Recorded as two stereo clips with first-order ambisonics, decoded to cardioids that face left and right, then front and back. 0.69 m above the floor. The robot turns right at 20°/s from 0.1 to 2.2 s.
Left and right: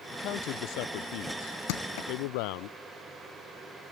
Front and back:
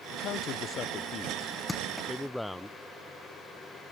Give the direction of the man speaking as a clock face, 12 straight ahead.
11 o'clock.